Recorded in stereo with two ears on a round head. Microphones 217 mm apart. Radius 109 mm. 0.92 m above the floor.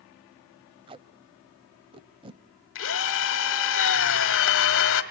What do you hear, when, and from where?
0.9 s tape being pulled: 20° right (ahead or behind), 0.8 m
2.8 s a drill: 55° left (ahead or behind), 1.4 m